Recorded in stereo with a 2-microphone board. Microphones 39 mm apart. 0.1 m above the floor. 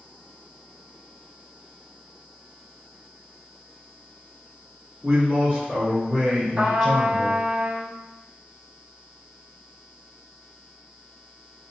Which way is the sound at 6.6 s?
40° right (ahead or behind).